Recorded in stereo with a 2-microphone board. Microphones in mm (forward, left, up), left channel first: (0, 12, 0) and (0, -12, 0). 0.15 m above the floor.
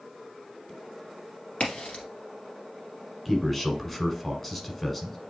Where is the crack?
60° left (ahead or behind), 1.9 m.